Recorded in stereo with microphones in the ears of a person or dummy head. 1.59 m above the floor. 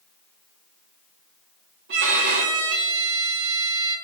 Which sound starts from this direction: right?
A violin, at 1.9 s.